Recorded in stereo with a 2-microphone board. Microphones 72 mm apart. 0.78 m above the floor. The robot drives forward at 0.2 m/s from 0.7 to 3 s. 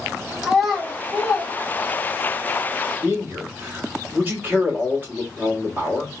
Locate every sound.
0.4 s a child speaking: 5° right (ahead or behind), 1.4 m
3.0 s a man speaking: 25° right (ahead or behind), 1.8 m